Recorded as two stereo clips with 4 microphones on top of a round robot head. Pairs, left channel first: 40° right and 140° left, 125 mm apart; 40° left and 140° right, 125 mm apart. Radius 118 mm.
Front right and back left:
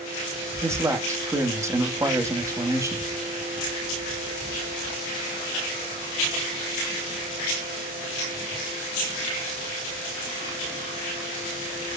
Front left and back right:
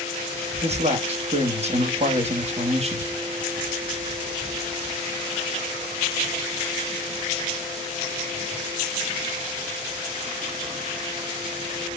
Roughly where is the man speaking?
Behind right.